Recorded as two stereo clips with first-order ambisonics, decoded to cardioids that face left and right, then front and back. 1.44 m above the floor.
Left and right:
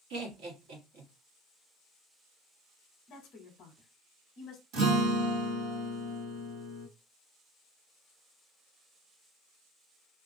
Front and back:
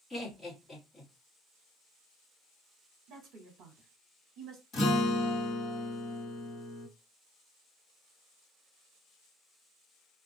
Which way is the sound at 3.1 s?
135° left.